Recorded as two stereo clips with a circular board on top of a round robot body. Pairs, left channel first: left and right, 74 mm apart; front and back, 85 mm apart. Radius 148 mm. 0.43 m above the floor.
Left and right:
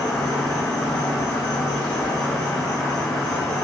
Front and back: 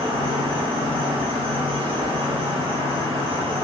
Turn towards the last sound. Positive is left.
turn(degrees=170)